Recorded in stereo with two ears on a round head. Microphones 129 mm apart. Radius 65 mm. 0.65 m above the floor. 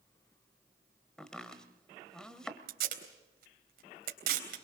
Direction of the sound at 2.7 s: 75° right (ahead or behind).